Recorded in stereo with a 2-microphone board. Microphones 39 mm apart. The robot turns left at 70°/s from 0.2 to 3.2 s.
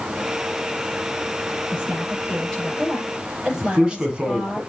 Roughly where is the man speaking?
Right.